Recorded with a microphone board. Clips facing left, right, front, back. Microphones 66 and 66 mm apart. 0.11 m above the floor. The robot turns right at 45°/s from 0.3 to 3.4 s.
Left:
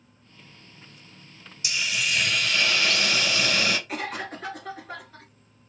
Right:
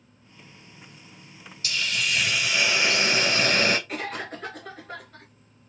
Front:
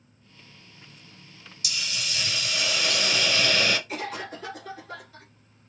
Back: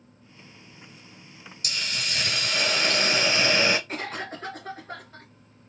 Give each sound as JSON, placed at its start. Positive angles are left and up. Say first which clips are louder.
{"t": 1.6, "sound": "a hiss", "louder": "even, back 2 dB", "azimuth_deg": 155, "distance_m": 0.7}
{"t": 3.9, "sound": "a cough", "louder": "even, even", "azimuth_deg": 175, "distance_m": 1.9}